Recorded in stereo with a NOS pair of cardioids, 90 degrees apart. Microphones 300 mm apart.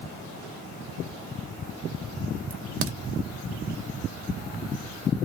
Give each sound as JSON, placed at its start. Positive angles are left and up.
{"t": 2.5, "sound": "a crack", "azimuth_deg": -45, "distance_m": 0.8}